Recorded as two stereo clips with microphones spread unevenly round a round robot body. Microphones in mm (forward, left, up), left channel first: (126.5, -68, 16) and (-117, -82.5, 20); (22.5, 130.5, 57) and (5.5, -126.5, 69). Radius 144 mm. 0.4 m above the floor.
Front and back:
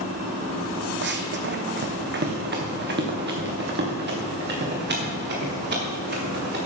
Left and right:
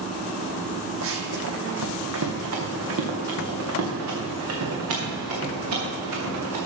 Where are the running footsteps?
135° right, 1.1 m; by 6.6 s 130° right, 4.5 m.